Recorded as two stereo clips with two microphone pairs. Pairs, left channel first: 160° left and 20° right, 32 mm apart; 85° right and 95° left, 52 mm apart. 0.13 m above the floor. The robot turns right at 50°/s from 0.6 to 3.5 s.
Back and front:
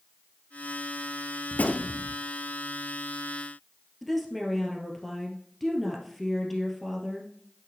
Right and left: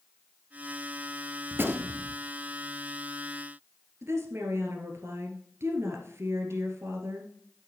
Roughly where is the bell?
No bell in this recording.